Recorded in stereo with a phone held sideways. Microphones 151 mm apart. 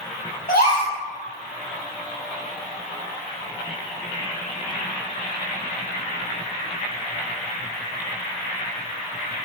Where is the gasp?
70° left (ahead or behind), 1.0 m.